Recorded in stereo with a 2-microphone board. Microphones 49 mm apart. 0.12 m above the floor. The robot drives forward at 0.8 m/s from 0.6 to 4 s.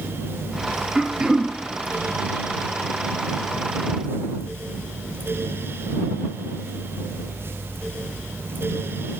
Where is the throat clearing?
15° right (ahead or behind), 1.3 m.